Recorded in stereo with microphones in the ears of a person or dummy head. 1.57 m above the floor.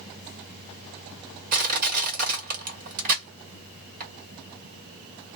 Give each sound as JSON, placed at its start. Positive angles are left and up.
{"t": 1.5, "sound": "crushing", "side_deg": -50, "distance_m": 1.5}